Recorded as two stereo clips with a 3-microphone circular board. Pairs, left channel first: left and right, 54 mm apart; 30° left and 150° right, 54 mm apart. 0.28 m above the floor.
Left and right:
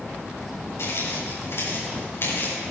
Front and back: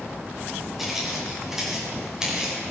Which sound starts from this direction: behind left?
Footsteps, at 0.8 s.